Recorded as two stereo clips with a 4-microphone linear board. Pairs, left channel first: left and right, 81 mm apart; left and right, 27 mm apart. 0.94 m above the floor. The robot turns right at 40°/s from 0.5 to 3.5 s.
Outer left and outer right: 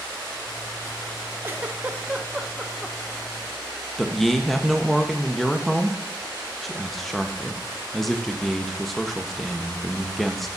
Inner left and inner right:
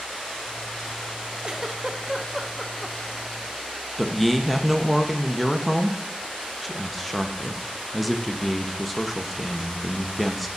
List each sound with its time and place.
1.4 s a giggle: 25° right (ahead or behind), 0.6 m; by 3.0 s 5° left (ahead or behind), 0.6 m
4.0 s a man speaking: centre (ahead or behind), 0.6 m